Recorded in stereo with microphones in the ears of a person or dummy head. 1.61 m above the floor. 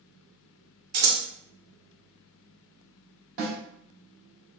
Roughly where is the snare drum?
Right.